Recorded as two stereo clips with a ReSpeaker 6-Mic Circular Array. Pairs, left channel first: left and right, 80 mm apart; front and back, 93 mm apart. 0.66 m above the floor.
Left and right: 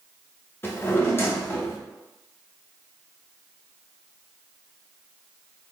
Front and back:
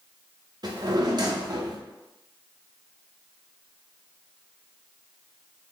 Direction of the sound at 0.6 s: 145° left.